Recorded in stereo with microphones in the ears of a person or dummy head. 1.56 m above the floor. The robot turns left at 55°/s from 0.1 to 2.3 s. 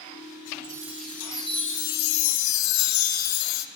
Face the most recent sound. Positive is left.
turn(degrees=110)